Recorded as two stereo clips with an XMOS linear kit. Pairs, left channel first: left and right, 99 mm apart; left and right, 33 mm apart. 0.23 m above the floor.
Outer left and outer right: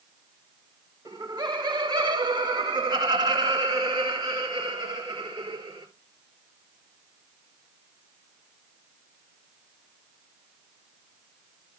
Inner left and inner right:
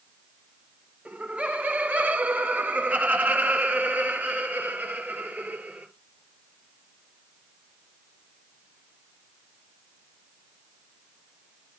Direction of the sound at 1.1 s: 40° right (ahead or behind).